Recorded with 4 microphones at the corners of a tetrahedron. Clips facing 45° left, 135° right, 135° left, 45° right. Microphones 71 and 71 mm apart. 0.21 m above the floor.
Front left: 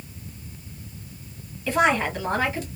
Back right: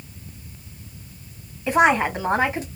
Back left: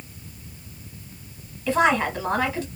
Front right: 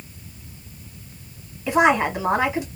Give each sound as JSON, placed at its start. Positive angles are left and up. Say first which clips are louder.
{"t": 1.7, "sound": "a woman speaking", "louder": "back right 4 dB, front right 3 dB", "azimuth_deg": -95, "distance_m": 1.2}